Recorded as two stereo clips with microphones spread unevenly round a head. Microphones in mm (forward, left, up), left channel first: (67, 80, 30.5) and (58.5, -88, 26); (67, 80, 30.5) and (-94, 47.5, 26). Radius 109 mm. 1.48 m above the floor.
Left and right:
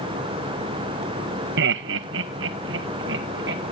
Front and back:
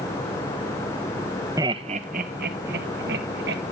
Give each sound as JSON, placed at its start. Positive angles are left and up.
{"t": 1.6, "sound": "laughter", "azimuth_deg": -95, "distance_m": 0.6}